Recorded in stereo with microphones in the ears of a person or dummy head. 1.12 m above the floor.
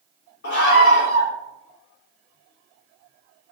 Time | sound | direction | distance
0.4 | a scream | 60° left (ahead or behind) | 3.5 m